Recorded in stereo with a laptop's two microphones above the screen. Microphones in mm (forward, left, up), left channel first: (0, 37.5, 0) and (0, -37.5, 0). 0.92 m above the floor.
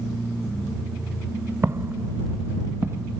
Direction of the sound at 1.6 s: 35° right (ahead or behind).